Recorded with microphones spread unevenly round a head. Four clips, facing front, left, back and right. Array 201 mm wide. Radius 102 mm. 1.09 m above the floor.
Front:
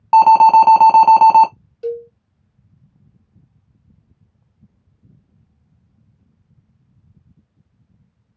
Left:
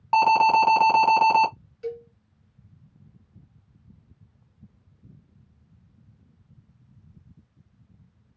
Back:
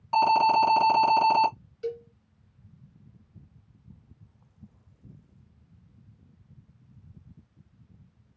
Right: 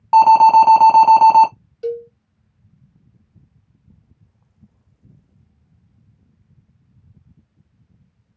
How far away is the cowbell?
About 1.0 m.